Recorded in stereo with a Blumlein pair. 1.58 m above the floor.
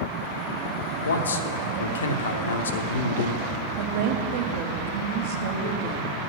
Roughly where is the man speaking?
Left.